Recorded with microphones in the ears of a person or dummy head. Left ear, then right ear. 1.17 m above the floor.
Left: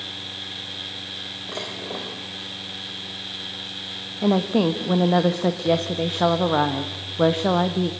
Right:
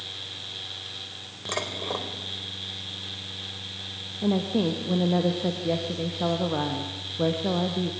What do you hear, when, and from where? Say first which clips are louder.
1.5 s dishes clattering: right 4 dB; 65° right (ahead or behind), 3.5 m
4.2 s a woman speaking: left 5 dB; 40° left (ahead or behind), 1.3 m